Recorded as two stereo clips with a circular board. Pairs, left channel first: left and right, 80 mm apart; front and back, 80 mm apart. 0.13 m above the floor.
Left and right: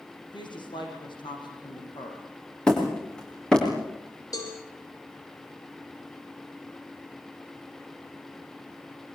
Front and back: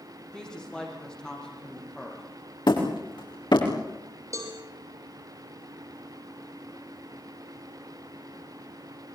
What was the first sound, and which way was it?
A woman speaking, 80° left.